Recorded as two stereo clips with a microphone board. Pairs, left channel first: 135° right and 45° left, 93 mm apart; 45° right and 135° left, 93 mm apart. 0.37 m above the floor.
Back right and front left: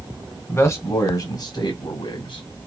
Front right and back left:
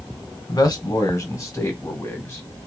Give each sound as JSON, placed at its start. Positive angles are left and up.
{"t": 0.5, "sound": "a man speaking", "azimuth_deg": -85, "distance_m": 1.3}